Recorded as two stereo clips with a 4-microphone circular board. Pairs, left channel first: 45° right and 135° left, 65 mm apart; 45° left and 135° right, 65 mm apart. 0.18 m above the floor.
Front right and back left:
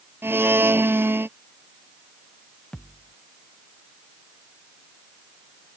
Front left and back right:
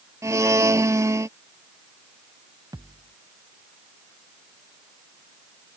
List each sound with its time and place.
0.2 s a blender: 170° right
2.7 s a thud: 120° right